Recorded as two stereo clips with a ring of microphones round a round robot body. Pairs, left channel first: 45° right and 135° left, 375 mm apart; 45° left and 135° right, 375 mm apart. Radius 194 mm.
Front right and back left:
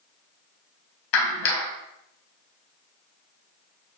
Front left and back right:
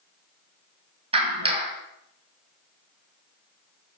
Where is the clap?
60° right, 2.5 m.